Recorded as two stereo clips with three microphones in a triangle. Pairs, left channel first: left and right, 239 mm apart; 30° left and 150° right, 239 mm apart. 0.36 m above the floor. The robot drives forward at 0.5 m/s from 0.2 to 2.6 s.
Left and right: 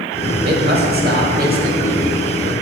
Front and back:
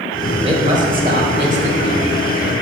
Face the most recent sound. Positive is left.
turn(degrees=-145)